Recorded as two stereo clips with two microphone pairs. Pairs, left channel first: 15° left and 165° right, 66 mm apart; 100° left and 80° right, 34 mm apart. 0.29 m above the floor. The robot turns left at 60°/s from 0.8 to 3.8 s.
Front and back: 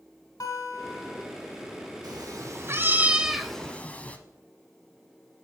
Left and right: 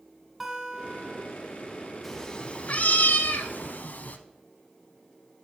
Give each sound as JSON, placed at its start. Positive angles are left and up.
{"t": 0.4, "sound": "a guitar", "azimuth_deg": 5, "distance_m": 1.3}
{"t": 2.0, "sound": "a cat meowing", "azimuth_deg": -175, "distance_m": 0.5}